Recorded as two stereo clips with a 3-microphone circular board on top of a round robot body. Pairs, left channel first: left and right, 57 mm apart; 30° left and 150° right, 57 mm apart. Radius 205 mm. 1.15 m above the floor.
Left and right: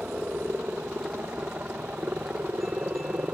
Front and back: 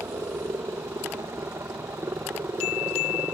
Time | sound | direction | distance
0.0 | a helicopter | 150° right | ?